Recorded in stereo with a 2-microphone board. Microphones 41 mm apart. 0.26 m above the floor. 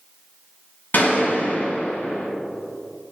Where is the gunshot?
60° left (ahead or behind), 2.5 m.